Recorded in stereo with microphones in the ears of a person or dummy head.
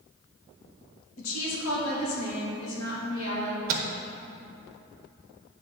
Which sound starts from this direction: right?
A microwave, at 3.7 s.